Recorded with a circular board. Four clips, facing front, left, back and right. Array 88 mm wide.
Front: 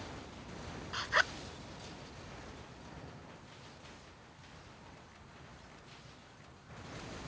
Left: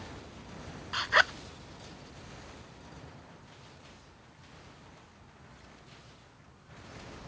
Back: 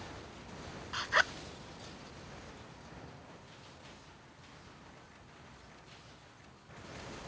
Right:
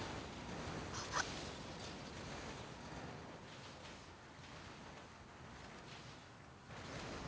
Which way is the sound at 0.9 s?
95° left.